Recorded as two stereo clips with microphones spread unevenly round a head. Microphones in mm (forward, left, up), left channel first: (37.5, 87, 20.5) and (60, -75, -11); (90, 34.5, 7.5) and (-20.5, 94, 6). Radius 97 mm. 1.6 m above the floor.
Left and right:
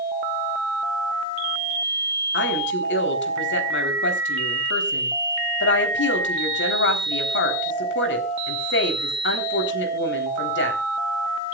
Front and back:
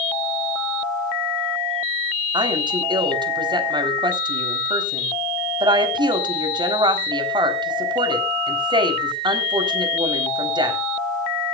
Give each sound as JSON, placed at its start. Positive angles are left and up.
{"t": 2.3, "sound": "a woman speaking", "azimuth_deg": 100, "distance_m": 4.0}